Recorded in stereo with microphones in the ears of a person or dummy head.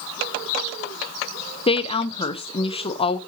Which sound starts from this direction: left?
A woman speaking, at 1.7 s.